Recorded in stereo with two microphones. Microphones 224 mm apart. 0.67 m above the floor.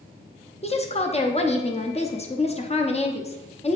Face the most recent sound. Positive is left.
turn(degrees=30)  # may be behind; listen again after turning